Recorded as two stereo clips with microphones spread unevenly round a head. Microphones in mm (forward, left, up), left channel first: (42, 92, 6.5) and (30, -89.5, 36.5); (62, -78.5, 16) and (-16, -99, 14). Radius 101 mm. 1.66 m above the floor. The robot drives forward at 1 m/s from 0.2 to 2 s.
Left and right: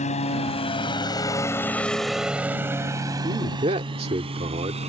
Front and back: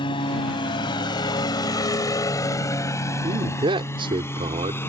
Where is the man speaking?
155° right.